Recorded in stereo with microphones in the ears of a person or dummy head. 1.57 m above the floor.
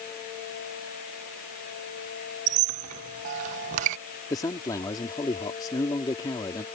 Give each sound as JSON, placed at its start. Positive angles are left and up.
{"t": 2.5, "sound": "a squeak", "side_deg": -40}
{"t": 4.3, "sound": "a man speaking", "side_deg": 20}